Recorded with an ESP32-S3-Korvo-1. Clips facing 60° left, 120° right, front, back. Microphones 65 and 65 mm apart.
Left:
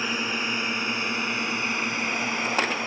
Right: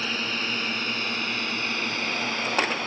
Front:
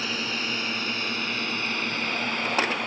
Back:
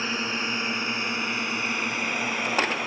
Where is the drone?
125° left; by 2.9 s 105° left.